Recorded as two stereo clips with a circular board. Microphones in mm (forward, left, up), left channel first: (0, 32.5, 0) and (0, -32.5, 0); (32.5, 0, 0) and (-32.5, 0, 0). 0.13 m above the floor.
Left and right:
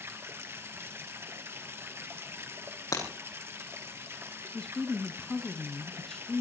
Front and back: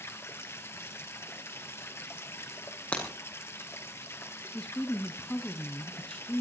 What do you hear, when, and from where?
0.0 s running water: 45° right, 2 m
2.9 s breaking glass: 70° left, 6 m
4.5 s a woman speaking: 25° left, 1.4 m